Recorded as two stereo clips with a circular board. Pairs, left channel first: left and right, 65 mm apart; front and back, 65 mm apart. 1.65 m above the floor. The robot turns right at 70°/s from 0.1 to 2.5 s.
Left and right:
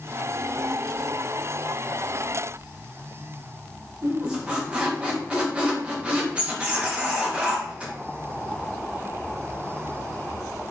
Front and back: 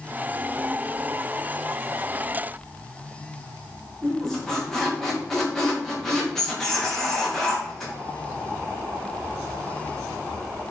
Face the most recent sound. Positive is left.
turn(degrees=-70)